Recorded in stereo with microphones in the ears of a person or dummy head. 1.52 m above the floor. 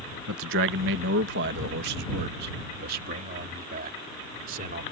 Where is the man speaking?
85° right; by 4.8 s 50° right (ahead or behind).